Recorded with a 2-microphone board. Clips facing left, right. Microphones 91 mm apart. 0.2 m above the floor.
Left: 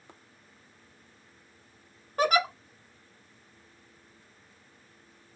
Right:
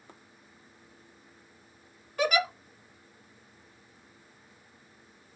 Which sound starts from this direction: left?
A giggle, at 2.2 s.